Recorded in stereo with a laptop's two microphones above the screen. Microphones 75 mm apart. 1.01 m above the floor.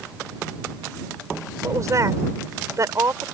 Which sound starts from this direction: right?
A woman speaking, at 1.6 s.